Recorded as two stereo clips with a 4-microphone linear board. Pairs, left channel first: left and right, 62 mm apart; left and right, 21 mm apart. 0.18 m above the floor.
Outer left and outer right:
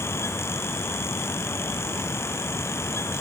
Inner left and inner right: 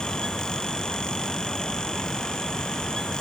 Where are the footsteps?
I don't hear footsteps.